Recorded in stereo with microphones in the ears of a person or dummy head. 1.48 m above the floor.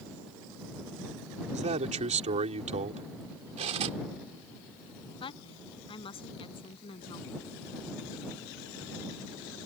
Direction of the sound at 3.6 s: 35° right (ahead or behind).